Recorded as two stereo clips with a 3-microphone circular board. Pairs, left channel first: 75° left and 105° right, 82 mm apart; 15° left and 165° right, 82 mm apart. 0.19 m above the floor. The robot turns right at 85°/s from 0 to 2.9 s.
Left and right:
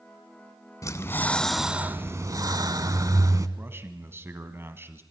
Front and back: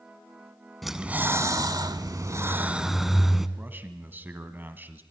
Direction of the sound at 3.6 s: 125° right.